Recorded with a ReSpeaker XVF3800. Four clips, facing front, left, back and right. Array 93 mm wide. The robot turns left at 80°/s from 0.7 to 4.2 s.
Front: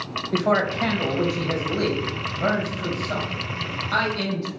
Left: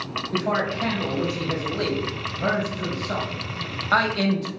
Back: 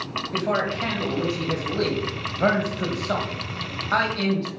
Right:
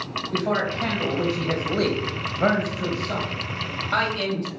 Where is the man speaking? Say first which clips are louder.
Even, front 4 dB; 5° left, 2.5 m; by 4.5 s 85° left, 2.5 m.